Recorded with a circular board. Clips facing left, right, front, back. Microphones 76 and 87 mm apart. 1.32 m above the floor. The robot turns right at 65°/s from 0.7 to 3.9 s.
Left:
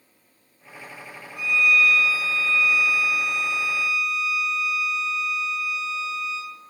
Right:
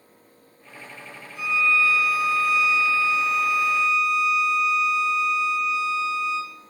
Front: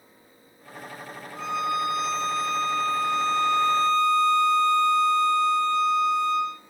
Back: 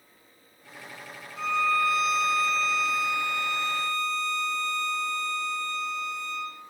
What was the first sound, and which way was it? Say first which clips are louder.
A violin: left 1 dB, back 1 dB; 45° left.